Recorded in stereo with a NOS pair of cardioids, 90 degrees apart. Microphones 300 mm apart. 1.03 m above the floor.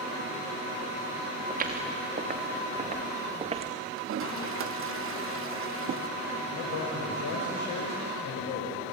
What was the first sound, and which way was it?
Footsteps, 30° right.